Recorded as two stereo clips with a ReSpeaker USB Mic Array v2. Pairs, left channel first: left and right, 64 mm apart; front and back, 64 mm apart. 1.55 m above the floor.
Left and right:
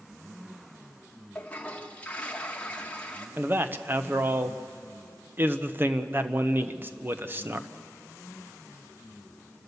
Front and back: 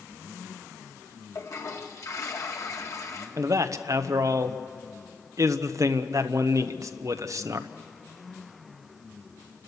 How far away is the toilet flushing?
About 1.8 m.